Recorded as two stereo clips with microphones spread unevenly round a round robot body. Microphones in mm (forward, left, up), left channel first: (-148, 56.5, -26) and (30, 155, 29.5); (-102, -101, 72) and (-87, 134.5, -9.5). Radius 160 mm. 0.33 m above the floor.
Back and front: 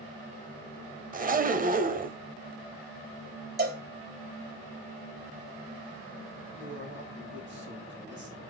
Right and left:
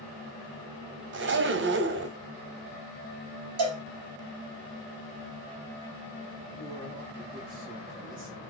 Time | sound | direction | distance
1.1 | a zipper | 85° left | 1.0 m
3.6 | a cowbell | 70° left | 4 m
6.5 | a man speaking | 65° left | 3 m